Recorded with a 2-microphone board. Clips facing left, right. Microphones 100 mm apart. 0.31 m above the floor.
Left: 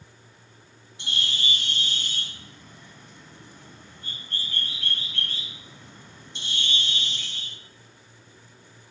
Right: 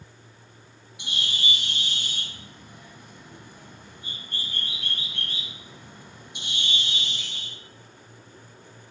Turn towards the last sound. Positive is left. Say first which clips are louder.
# even
turn(degrees=-15)  # may be behind; listen again after turning